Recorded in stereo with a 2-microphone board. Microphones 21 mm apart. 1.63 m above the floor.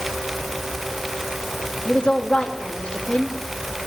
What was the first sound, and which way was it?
A woman speaking, 55° left (ahead or behind).